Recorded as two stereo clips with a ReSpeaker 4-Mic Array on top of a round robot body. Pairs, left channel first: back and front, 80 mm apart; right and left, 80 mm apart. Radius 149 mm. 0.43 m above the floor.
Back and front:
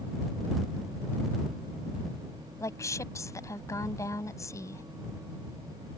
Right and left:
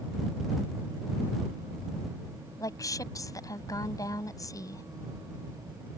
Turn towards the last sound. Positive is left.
turn(degrees=-130)